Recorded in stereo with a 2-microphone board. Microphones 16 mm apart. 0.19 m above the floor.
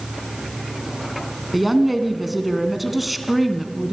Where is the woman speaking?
5° right (ahead or behind), 1.8 m.